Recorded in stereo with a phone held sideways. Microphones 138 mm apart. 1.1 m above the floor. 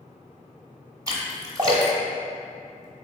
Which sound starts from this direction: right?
A splash, at 1.1 s.